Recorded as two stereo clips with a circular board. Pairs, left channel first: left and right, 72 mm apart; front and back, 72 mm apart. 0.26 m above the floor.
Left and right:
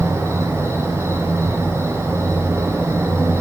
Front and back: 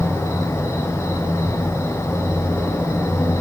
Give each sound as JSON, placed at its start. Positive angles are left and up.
{"t": 0.0, "sound": "an insect", "azimuth_deg": -45, "distance_m": 7.0}